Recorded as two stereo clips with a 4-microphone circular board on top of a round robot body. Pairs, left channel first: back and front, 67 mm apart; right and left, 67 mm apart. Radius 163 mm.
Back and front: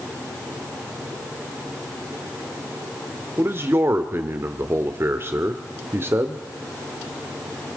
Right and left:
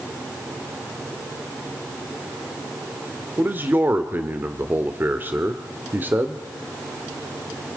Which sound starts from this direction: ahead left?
A man speaking, at 3.4 s.